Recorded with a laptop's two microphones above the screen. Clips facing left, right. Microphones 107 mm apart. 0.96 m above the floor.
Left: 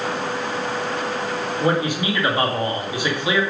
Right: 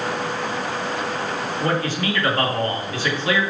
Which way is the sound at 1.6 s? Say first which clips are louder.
Left 3 dB; 15° left (ahead or behind).